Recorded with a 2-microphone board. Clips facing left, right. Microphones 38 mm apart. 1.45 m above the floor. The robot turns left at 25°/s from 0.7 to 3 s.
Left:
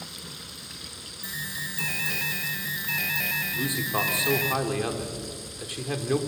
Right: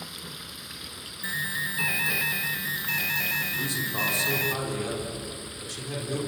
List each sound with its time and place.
0.0 s running water: 15° right (ahead or behind), 1.5 m; by 6.3 s 25° right (ahead or behind), 1.5 m
1.2 s an alarm: 140° right, 1.1 m; by 4.5 s 175° left, 1.1 m
3.5 s a man speaking: 40° left (ahead or behind), 3.5 m